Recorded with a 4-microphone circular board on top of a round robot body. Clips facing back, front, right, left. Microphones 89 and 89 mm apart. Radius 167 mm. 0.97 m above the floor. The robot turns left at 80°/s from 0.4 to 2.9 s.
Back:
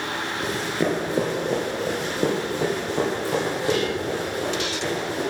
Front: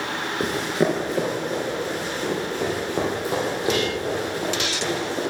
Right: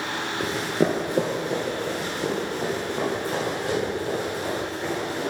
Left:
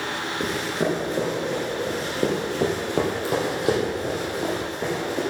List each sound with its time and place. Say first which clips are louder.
0.4 s running footsteps: front 3 dB, right 2 dB; straight ahead, 1.0 m; by 5.2 s 70° left, 3.5 m